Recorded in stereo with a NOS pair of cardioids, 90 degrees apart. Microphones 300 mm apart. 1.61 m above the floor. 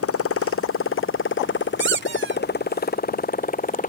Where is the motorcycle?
50° left; by 3.9 s 25° left.